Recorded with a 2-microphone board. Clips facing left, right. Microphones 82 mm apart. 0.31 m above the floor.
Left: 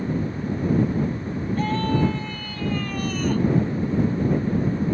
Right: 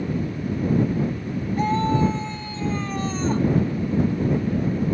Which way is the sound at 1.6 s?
20° right (ahead or behind).